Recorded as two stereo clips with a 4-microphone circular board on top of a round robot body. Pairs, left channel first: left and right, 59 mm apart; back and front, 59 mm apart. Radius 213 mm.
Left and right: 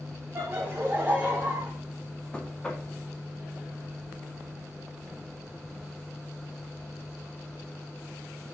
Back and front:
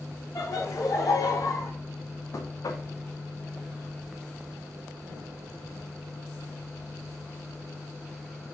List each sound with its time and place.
0.3 s laughter: 145° right, 3 m; by 1.7 s 160° right, 3.5 m
2.3 s knocking: 165° left, 1.6 m